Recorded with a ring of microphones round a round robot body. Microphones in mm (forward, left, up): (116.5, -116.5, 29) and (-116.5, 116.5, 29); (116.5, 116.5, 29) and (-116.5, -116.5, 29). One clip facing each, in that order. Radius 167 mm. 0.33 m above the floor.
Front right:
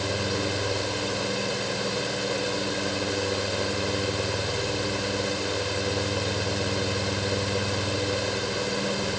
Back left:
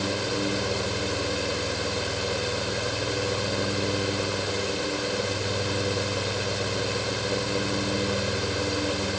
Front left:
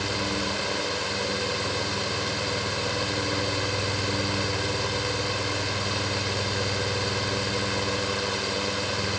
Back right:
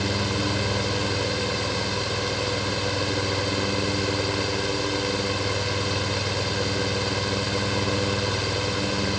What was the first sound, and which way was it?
Only background noise.